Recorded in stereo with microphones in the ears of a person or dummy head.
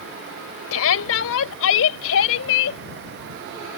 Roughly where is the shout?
Left.